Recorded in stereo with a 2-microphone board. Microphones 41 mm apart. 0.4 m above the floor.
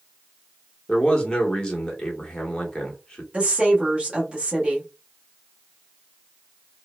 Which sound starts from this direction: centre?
A man speaking, at 0.9 s.